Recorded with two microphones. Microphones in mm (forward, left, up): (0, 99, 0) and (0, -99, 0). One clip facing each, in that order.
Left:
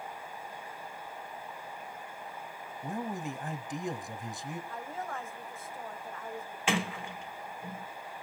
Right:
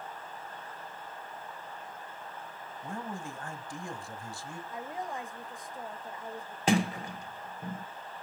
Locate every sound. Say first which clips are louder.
2.8 s a man speaking: left 4 dB; 20° left (ahead or behind), 1.2 m
4.7 s a woman speaking: right 1 dB; 15° right (ahead or behind), 1.0 m
6.7 s a sliding door: right 5 dB; 40° right (ahead or behind), 1.4 m